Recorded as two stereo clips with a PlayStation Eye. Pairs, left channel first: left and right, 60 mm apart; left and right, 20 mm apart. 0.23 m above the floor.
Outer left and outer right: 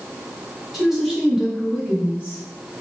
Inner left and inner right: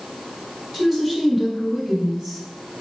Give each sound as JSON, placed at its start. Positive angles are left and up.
{"t": 0.7, "sound": "a woman speaking", "side_deg": 0, "distance_m": 1.5}